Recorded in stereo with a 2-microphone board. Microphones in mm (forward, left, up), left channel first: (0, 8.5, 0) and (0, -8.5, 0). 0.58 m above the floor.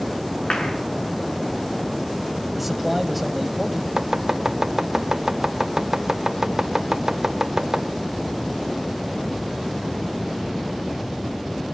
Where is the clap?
65° left (ahead or behind), 5.5 m.